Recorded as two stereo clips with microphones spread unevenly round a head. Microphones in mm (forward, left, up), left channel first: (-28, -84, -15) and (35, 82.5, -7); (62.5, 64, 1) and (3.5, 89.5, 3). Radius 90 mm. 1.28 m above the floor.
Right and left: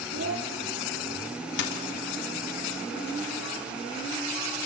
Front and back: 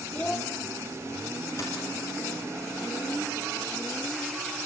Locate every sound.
0.1 s a child speaking: 50° left, 1.8 m
1.6 s a dropped coin: 90° right, 3 m